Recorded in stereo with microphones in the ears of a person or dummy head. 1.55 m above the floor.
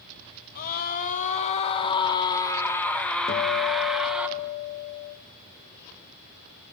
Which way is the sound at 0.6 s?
50° left (ahead or behind).